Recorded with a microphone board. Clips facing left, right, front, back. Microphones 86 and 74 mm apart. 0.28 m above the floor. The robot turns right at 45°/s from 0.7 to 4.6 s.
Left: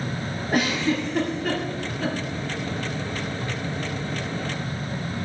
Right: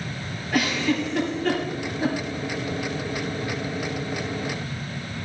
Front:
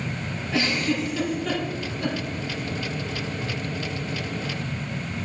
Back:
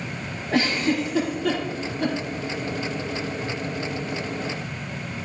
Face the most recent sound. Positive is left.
turn(degrees=-45)